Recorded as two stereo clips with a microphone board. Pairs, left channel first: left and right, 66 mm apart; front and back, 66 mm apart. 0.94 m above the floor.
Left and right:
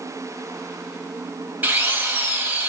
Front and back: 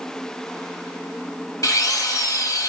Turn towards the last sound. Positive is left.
turn(degrees=-25)